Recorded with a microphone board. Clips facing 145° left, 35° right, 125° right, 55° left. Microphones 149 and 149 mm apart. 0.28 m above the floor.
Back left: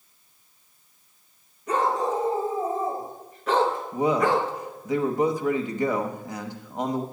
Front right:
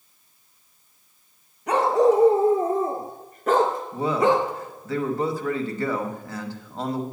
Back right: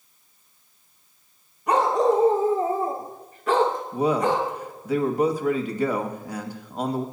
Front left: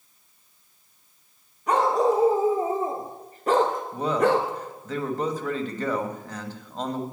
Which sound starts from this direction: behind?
A man speaking, at 3.9 s.